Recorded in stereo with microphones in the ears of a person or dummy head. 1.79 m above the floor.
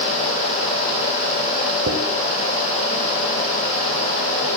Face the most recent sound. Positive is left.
turn(degrees=-35)  # may be behind; listen again after turning